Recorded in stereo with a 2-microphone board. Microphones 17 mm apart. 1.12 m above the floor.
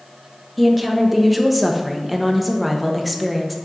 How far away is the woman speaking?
About 0.8 m.